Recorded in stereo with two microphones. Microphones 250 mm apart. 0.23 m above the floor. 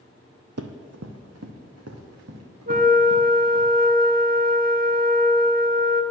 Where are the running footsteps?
75° right (ahead or behind), 0.7 m; by 3.7 s 85° right, 2.5 m.